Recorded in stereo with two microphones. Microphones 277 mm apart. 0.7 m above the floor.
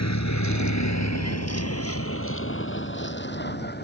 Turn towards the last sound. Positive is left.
turn(degrees=35)  # may be behind; listen again after turning